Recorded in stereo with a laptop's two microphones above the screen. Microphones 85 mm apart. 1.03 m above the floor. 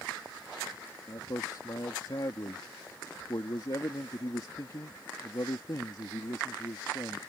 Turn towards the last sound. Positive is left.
turn(degrees=50)  # may be behind; listen again after turning